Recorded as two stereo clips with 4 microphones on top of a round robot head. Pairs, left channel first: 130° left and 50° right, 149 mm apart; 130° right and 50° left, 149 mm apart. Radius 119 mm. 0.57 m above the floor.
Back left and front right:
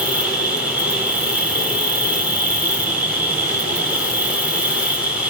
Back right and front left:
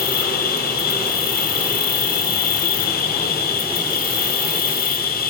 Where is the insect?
135° right, 1.4 m.